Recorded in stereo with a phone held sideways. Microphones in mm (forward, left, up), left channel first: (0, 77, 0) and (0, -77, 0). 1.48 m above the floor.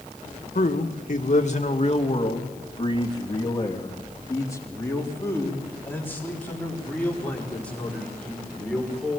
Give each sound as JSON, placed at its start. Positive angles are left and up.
{"t": 0.6, "sound": "a man speaking", "side_deg": 65, "distance_m": 1.9}